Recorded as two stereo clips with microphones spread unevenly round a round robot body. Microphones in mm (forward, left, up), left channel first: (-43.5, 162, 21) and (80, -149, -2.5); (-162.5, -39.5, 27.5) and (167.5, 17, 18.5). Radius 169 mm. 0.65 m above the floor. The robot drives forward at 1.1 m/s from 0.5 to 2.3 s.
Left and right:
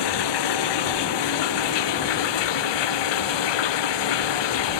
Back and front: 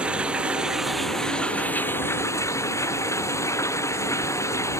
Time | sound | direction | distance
0.0 | running water | 95° left | ?